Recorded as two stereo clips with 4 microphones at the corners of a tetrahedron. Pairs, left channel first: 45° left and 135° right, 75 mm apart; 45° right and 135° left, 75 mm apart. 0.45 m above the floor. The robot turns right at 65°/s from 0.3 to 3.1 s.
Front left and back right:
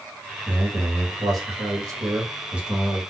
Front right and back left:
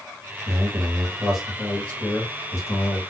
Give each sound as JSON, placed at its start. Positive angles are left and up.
{"t": 0.5, "sound": "a man speaking", "azimuth_deg": 160, "distance_m": 1.4}